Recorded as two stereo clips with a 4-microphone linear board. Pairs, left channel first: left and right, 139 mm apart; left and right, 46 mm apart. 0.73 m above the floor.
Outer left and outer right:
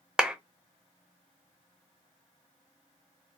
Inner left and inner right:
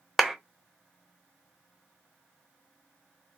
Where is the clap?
5° right (ahead or behind), 0.7 m.